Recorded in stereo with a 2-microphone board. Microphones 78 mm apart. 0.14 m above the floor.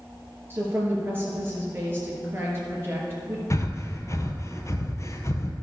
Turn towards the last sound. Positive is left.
turn(degrees=35)  # may be behind; listen again after turning